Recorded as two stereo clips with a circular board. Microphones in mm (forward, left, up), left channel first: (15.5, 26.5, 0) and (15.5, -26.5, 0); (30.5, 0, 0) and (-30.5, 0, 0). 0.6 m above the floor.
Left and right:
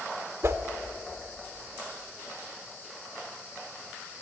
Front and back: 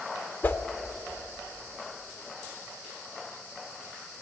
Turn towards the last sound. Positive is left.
turn(degrees=-55)